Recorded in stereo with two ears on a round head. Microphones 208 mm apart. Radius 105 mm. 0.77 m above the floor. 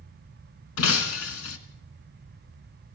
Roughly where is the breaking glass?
Left.